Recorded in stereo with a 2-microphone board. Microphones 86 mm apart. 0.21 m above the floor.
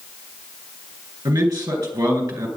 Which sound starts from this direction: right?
A man speaking, at 1.2 s.